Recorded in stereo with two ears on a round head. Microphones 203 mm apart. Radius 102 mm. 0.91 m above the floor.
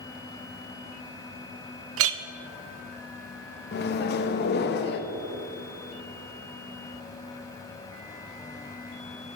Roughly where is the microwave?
Left.